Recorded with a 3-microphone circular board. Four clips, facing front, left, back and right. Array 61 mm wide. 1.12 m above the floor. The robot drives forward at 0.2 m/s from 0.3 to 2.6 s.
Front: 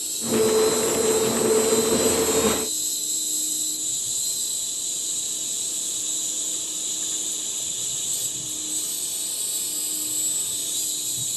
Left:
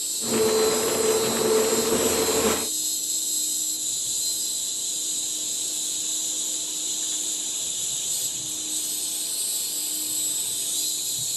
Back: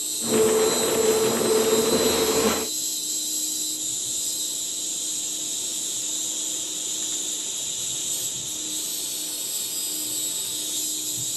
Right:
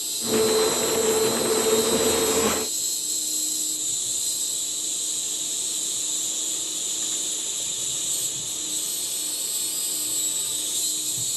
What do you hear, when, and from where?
0.0 s an insect: 105° right, 1.4 m; by 11.4 s 125° right, 1.5 m